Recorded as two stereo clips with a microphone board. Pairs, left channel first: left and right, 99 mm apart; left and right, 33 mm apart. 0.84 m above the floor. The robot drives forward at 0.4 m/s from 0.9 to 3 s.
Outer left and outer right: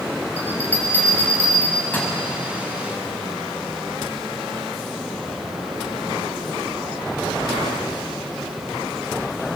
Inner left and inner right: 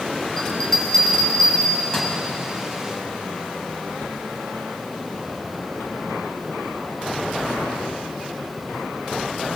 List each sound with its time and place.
0.4 s a bell: 15° left (ahead or behind), 5.5 m; by 2.1 s 20° left (ahead or behind), 5 m